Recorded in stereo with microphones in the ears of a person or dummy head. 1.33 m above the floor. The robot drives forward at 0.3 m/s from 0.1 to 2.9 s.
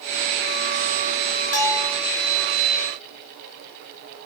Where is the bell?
65° left (ahead or behind), 1.0 m; by 2.0 s 60° left (ahead or behind), 1.0 m.